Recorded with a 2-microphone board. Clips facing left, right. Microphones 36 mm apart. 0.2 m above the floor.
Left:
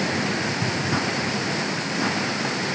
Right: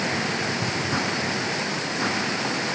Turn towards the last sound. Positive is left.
No sound to turn to.